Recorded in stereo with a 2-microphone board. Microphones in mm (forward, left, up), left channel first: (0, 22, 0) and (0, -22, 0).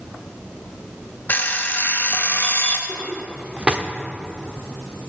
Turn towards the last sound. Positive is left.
turn(degrees=-25)  # may be behind; listen again after turning